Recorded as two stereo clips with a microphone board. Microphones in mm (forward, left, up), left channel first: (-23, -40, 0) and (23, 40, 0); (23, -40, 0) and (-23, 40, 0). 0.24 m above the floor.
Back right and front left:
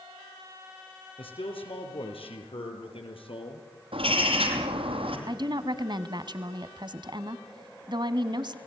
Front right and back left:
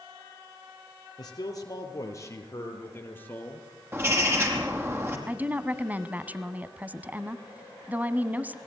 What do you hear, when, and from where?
1.2 s a man speaking: 105° right, 6 m; by 3.7 s 135° right, 6 m
3.9 s a bird: 55° left, 5 m
5.3 s a woman speaking: 50° left, 1.5 m